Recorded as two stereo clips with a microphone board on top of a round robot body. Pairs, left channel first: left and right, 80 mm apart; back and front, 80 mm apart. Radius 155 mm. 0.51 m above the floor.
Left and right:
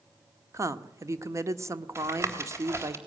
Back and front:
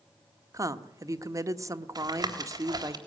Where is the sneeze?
No sneeze in this recording.